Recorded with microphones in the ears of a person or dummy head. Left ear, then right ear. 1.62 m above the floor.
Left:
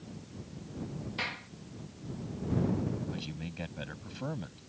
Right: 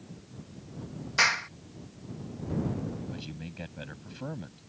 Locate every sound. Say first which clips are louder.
1.2 s a clap: right 13 dB; 55° right (ahead or behind)
3.1 s a man speaking: left 1 dB; 5° left (ahead or behind)